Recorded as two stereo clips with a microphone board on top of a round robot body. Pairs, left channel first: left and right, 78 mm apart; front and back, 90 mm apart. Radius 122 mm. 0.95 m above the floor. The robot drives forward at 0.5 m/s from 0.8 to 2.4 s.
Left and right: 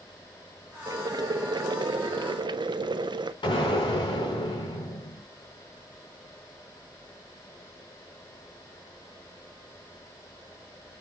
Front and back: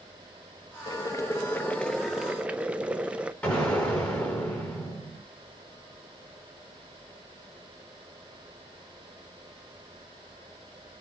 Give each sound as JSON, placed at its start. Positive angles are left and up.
{"t": 0.9, "sound": "boiling", "azimuth_deg": -45, "distance_m": 1.0}
{"t": 3.4, "sound": "an explosion", "azimuth_deg": 75, "distance_m": 4.0}